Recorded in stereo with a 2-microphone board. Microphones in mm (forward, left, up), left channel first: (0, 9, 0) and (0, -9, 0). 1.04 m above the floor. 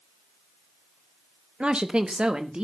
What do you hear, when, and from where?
1.6 s a woman speaking: 75° right (ahead or behind), 0.7 m; by 2.6 s 70° right (ahead or behind), 1.3 m